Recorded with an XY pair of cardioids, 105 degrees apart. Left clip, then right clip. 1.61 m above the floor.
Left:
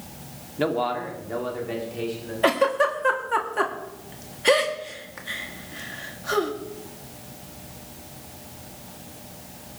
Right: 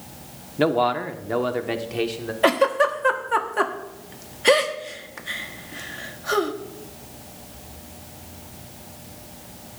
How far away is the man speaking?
About 1.2 m.